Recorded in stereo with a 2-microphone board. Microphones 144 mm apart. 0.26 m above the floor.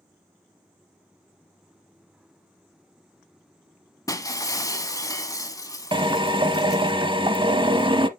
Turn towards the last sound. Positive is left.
turn(degrees=-35)  # may be behind; listen again after turning